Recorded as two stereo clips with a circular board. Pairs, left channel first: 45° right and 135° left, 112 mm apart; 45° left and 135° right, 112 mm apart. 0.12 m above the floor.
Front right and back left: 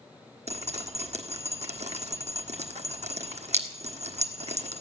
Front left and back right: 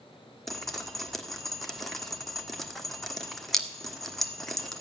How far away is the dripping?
About 1.2 m.